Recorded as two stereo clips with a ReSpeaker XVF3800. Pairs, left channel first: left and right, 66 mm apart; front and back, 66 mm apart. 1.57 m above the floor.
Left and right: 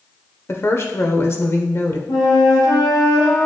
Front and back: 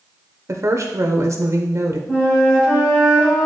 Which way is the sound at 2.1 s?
75° left.